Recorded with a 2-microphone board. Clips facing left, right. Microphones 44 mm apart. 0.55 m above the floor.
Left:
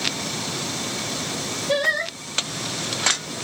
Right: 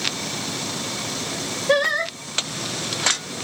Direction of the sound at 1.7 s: 55° right (ahead or behind).